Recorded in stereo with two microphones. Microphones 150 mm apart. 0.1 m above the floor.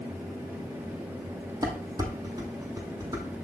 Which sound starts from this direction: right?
Dishes clattering, at 1.6 s.